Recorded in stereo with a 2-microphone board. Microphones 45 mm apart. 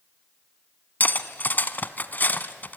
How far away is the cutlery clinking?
About 0.9 m.